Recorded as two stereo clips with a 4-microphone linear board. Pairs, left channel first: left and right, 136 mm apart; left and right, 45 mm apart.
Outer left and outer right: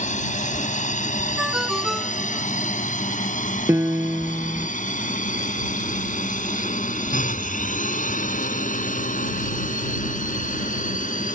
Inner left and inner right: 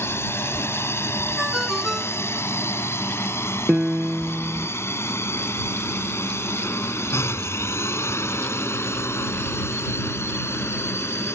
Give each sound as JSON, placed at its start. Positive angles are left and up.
{"t": 0.0, "sound": "a drone", "side_deg": 65}
{"t": 1.4, "sound": "a ringtone", "side_deg": 0}
{"t": 3.7, "sound": "a piano", "side_deg": -20}